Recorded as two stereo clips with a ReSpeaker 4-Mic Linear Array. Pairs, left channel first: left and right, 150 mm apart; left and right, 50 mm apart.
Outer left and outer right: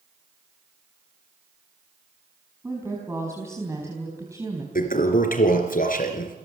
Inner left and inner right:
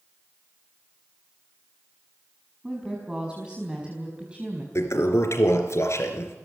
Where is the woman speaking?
15° right (ahead or behind), 5 m; by 4.7 s 20° right (ahead or behind), 4 m.